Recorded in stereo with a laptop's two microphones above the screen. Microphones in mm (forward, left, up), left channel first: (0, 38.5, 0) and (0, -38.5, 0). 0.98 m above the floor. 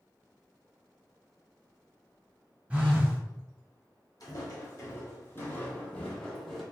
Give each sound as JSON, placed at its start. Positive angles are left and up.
{"t": 2.7, "sound": "a phone buzzing", "side_deg": -15, "distance_m": 0.9}
{"t": 4.2, "sound": "footsteps", "side_deg": 50, "distance_m": 1.4}